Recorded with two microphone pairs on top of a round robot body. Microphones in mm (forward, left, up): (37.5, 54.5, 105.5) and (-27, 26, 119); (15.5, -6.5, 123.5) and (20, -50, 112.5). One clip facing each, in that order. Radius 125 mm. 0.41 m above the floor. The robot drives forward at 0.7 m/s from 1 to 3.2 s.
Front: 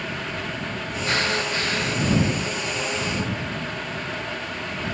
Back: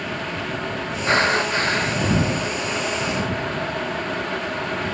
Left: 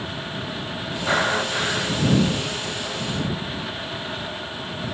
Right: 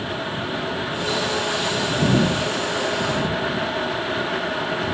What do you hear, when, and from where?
1.1 s breathing: 145° left